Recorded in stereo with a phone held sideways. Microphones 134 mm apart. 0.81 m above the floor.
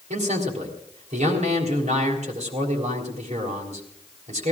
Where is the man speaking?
55° right (ahead or behind), 4 m.